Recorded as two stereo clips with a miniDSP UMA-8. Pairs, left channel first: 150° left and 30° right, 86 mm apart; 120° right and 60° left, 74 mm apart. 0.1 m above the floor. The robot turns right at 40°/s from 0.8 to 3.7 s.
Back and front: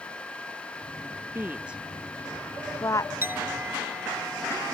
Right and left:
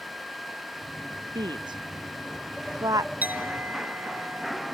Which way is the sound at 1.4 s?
35° left.